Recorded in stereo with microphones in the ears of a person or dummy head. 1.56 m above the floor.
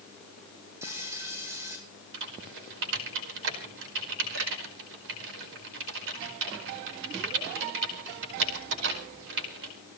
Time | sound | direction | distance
0.8 | frying | 15° right (ahead or behind) | 9 m
2.1 | typing on a keyboard | 70° right (ahead or behind) | 4.5 m